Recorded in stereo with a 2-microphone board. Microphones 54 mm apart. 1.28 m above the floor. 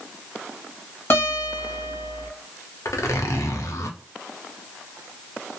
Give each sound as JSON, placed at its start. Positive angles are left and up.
{"t": 1.1, "sound": "a guitar", "side_deg": 50, "distance_m": 1.5}
{"t": 2.9, "sound": "a zipper", "side_deg": 70, "distance_m": 0.6}